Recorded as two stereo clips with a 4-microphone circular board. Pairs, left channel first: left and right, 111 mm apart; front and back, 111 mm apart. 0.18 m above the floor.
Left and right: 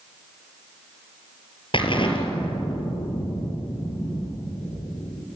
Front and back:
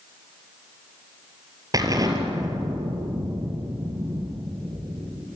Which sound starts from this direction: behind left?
An explosion, at 1.7 s.